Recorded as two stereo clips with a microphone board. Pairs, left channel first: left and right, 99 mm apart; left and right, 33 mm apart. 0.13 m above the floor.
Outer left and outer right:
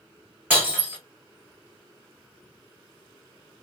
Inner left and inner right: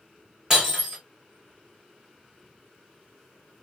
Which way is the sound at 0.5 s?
15° right (ahead or behind).